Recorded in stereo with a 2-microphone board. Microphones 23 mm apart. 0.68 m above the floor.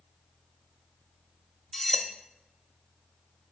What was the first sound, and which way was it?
Cutlery clinking, 5° left (ahead or behind).